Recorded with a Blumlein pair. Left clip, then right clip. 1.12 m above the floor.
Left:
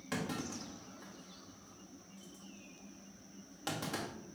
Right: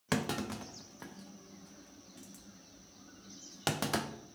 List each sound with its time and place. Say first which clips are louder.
0.1 s a clunk: right 5 dB; 30° right, 0.5 m